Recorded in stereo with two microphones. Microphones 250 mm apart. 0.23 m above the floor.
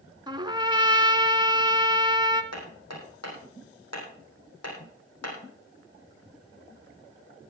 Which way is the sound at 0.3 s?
20° right (ahead or behind).